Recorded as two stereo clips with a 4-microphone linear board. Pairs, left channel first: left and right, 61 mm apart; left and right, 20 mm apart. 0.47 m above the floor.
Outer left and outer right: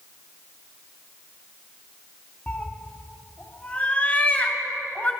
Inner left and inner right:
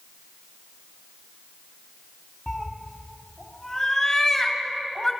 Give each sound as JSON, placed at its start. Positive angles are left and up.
{"t": 2.5, "sound": "a cat meowing", "side_deg": 25, "distance_m": 1.1}